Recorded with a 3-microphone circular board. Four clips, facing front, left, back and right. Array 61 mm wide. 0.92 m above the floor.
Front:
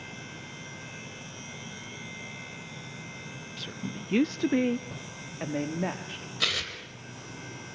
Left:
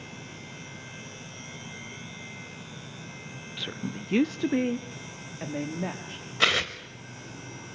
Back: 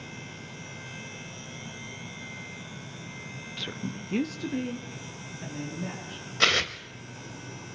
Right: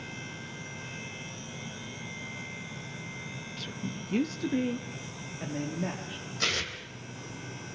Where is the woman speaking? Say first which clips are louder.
Left 4 dB, back 2 dB; 130° left, 0.5 m; by 6.3 s 20° left, 2.0 m.